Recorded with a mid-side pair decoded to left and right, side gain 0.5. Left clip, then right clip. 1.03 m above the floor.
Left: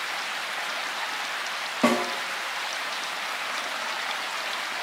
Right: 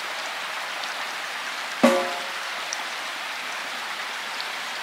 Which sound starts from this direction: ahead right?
A snare drum, at 1.8 s.